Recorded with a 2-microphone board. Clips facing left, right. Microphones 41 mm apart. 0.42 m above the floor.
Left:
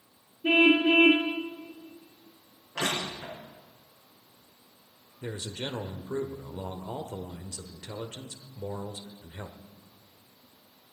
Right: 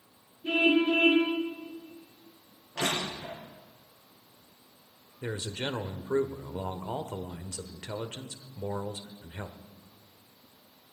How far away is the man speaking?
About 1.1 m.